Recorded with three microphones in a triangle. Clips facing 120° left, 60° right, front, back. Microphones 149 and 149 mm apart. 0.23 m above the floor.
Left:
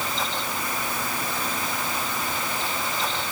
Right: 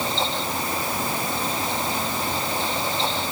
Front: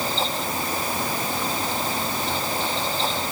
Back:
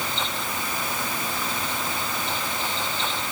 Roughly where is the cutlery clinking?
I don't hear cutlery clinking.